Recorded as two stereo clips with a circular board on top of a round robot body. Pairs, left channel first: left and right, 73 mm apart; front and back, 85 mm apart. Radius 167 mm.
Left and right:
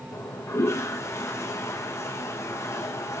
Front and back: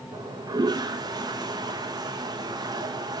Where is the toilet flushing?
140° left, 1.3 m.